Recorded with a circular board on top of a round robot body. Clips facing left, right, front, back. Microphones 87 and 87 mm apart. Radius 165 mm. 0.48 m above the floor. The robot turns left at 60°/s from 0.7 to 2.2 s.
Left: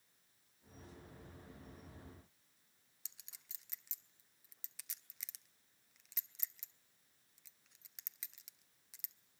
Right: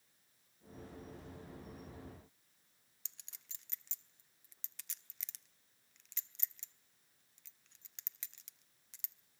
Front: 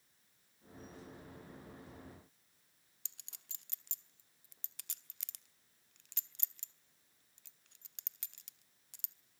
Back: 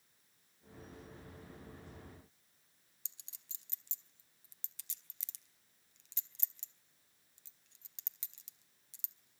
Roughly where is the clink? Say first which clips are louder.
Right 1 dB, front 4 dB; ahead.